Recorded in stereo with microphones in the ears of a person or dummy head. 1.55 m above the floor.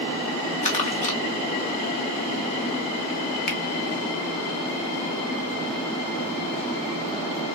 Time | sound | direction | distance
0.6 | crumpling | 35° left (ahead or behind) | 1.2 m
3.5 | a finger snap | 55° left (ahead or behind) | 1.1 m